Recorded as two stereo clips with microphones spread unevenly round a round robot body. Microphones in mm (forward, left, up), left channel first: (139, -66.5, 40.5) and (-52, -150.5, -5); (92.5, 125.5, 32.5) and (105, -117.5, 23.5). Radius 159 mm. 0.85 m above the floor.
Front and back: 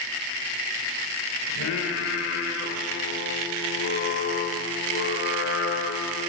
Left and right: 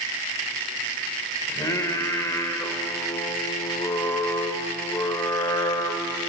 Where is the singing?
15° left, 1.6 m.